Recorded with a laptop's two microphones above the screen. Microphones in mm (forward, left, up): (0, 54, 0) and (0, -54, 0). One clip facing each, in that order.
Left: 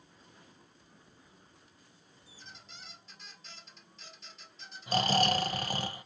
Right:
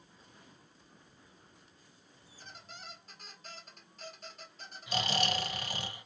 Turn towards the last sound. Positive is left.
turn(degrees=40)  # may be behind; listen again after turning